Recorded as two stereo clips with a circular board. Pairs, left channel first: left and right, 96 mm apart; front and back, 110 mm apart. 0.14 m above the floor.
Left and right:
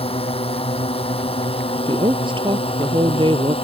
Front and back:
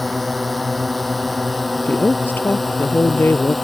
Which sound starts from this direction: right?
A woman speaking, at 1.8 s.